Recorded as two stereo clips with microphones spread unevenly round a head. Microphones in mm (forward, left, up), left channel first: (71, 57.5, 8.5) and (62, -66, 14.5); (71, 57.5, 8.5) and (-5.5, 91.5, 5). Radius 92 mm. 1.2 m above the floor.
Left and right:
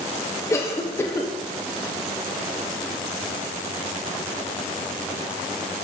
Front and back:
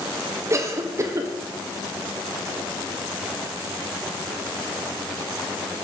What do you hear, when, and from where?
0.5 s a cough: 140° left, 0.8 m